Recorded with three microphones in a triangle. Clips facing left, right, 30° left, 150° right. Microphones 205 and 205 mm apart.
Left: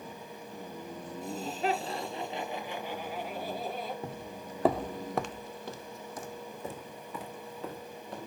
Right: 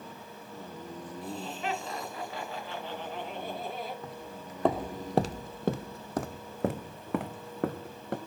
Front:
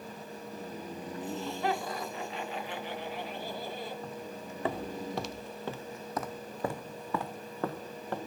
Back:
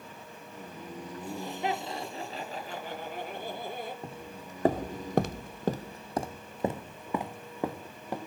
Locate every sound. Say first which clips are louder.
1.2 s laughter: left 4 dB, front 1 dB; 130° left, 3.5 m; by 3.9 s straight behind, 5.5 m
4.0 s footsteps: left 2 dB, front 2 dB; 150° left, 0.8 m; by 8.2 s 70° right, 2 m